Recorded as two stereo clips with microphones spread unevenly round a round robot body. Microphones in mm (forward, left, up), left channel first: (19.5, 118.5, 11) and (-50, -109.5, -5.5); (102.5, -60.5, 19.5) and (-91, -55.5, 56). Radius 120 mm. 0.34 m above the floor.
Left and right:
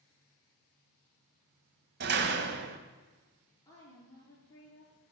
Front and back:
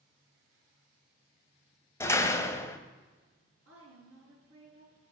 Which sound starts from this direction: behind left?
A woman speaking, at 3.6 s.